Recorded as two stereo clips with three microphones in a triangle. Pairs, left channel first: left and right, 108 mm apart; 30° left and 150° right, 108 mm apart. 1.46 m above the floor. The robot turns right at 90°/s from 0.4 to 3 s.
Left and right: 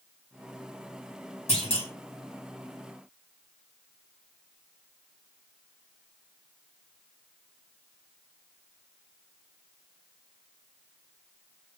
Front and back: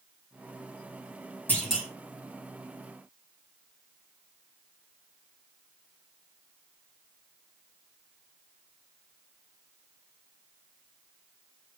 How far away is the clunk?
About 3.5 m.